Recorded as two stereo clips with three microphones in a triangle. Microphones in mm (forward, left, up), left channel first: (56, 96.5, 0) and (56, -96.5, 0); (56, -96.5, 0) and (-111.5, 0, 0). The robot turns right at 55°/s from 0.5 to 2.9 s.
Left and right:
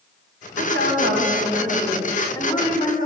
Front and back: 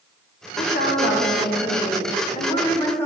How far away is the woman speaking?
About 1.6 m.